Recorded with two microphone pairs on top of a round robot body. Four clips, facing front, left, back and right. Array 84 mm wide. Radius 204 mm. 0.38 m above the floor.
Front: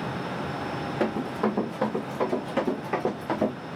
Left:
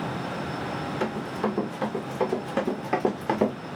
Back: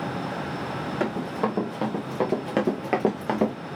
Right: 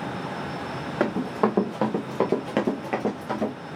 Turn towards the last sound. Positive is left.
turn(degrees=135)